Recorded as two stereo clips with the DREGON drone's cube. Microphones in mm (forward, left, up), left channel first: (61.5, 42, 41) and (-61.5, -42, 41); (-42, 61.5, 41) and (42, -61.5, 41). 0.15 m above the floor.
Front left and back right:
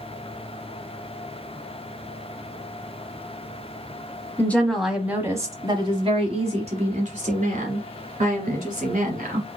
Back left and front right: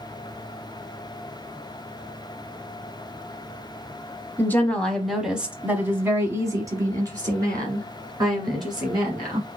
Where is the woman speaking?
80° left, 1.0 m; by 9.5 s 115° right, 3 m.